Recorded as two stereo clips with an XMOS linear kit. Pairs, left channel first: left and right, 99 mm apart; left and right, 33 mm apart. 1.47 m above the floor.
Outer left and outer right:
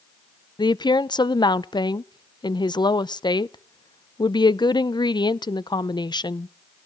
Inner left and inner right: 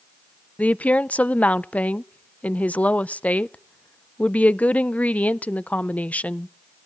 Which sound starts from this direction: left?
A woman speaking, at 0.6 s.